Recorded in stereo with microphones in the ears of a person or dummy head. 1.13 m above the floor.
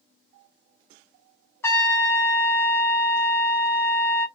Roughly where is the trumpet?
Centre.